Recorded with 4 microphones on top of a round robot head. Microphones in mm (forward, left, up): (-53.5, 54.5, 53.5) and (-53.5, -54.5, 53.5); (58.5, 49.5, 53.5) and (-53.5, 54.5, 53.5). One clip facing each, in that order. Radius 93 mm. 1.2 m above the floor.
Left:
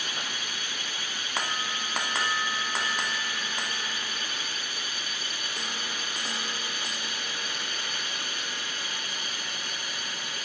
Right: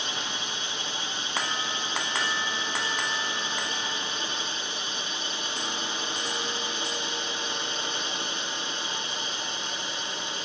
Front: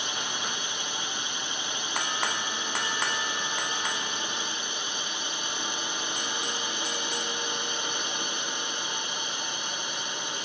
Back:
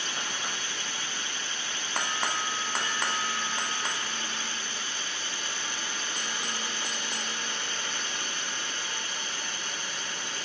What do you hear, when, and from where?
0.0 s a drone: 55° right